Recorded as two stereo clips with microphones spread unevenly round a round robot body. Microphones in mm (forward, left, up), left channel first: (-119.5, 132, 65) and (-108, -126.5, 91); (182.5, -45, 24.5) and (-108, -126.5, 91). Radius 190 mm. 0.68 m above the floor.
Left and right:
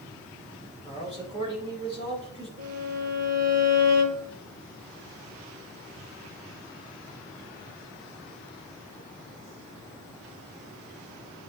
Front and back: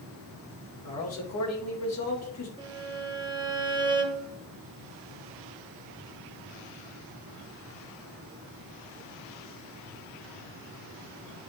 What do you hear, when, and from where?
0.8 s a man speaking: 10° right, 3 m
2.6 s a violin: 85° right, 1.9 m